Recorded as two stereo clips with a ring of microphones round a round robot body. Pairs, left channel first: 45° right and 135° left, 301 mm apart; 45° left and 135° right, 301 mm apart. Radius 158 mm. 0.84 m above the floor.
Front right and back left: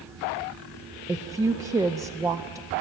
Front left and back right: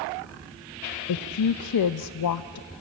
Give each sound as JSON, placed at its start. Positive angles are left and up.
{"t": 1.1, "sound": "a woman speaking", "azimuth_deg": 55, "distance_m": 0.5}